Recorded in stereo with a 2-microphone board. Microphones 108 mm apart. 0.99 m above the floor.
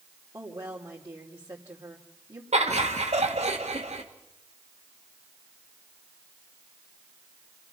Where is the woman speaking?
30° right (ahead or behind), 3 m.